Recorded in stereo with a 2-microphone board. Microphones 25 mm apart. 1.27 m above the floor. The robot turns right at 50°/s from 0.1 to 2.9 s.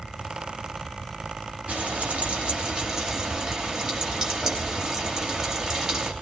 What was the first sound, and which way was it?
Frying, 90° right.